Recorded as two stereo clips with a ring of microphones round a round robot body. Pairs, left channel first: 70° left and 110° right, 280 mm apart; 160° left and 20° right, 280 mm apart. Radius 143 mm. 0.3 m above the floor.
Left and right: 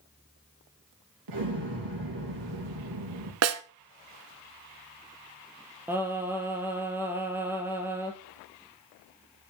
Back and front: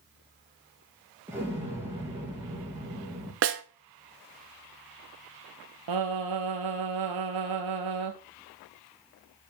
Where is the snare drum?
75° right, 0.8 m.